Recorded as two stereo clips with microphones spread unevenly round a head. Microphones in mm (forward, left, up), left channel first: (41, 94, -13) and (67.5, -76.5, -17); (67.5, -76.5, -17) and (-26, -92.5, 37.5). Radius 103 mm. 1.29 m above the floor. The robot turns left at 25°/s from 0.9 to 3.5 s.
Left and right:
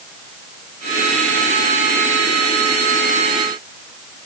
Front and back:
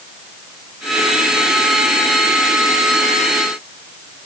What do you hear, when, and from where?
Only background noise.